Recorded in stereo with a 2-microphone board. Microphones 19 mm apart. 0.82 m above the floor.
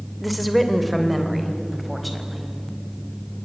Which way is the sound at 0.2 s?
Centre (ahead or behind).